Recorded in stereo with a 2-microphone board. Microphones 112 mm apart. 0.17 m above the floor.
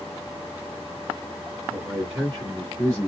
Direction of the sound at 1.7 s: 15° right (ahead or behind).